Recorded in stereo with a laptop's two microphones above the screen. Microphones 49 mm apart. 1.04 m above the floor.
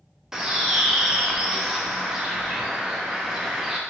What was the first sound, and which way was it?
A bird, 10° right (ahead or behind).